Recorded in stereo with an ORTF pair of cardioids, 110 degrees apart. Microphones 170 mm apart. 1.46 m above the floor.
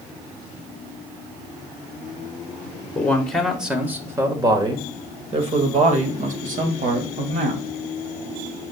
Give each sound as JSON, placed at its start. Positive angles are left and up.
{"t": 3.0, "sound": "a man speaking", "azimuth_deg": 10, "distance_m": 1.6}